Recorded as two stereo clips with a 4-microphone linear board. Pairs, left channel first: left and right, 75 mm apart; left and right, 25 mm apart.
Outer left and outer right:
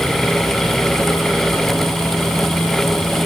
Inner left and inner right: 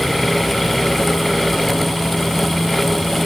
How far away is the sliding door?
No sliding door in this recording.